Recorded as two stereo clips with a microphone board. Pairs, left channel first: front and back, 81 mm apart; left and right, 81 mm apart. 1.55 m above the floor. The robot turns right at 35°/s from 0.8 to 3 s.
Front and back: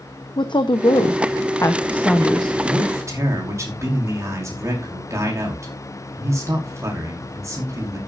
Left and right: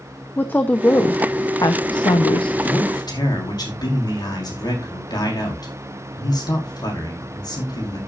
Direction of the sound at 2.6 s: 115° left.